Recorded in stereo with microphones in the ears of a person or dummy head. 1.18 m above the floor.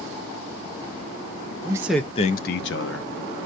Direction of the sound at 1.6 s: 25° right (ahead or behind).